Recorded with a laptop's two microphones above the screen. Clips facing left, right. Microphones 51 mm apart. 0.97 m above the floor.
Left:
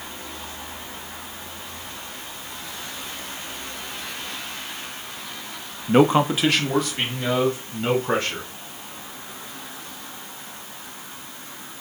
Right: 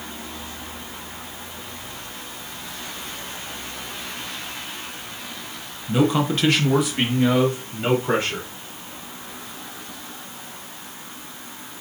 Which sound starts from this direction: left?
A man speaking, at 5.9 s.